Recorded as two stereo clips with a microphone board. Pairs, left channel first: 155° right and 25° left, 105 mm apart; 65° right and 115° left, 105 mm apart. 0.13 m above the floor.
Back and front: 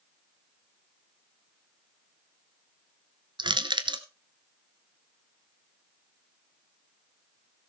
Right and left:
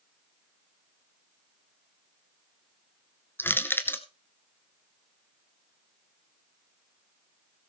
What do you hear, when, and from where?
3.4 s crushing: straight ahead, 1.0 m